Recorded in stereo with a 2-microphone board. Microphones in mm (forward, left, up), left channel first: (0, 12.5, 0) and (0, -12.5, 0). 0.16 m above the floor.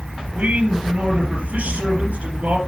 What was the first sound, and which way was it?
A man speaking, 70° right (ahead or behind).